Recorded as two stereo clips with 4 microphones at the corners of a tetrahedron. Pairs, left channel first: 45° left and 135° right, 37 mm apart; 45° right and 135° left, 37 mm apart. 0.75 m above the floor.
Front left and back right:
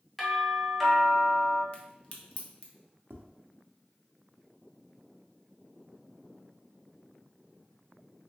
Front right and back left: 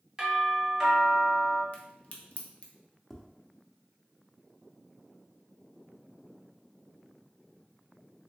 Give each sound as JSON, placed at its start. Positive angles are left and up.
{"t": 0.2, "sound": "a doorbell", "azimuth_deg": 125, "distance_m": 0.9}
{"t": 1.7, "sound": "a crack", "azimuth_deg": 0, "distance_m": 0.6}
{"t": 3.1, "sound": "tapping", "azimuth_deg": -130, "distance_m": 0.6}